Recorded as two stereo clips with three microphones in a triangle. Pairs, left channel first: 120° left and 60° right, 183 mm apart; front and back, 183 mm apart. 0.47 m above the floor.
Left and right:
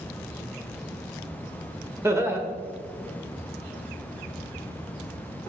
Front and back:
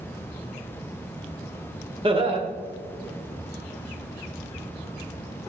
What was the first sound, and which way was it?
Laughter, 130° right.